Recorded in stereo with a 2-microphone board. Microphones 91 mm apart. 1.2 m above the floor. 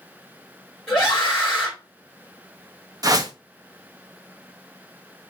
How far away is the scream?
About 2 m.